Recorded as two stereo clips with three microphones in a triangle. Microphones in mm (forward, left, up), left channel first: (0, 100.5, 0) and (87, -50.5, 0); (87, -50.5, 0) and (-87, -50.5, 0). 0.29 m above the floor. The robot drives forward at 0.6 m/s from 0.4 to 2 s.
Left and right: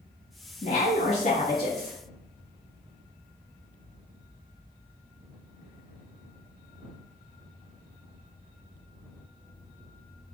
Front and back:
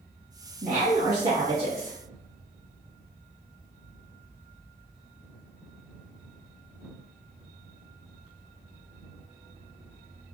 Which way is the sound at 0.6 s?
150° left.